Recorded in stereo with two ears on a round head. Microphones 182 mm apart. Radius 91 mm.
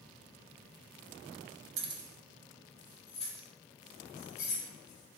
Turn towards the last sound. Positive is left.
turn(degrees=40)  # may be behind; listen again after turning